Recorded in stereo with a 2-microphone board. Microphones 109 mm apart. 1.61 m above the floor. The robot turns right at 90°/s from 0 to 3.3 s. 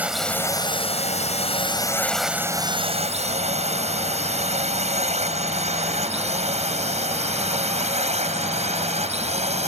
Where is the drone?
15° right (ahead or behind); by 9.7 s 85° right.